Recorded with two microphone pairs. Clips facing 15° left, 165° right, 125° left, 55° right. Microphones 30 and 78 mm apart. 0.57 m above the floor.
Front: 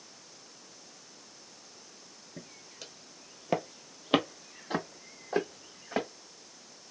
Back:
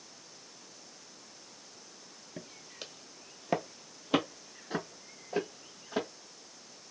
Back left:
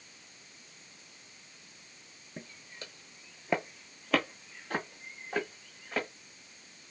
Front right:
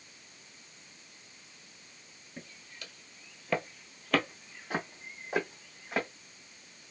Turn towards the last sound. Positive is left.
turn(degrees=20)